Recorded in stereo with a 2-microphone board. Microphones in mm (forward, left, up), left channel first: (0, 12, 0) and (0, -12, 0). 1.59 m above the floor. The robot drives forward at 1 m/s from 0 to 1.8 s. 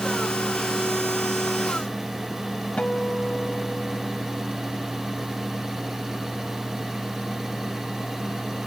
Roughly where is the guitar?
Left.